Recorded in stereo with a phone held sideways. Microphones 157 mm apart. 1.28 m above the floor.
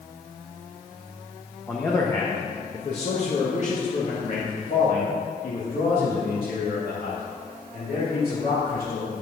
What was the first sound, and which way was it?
A man speaking, 10° left (ahead or behind).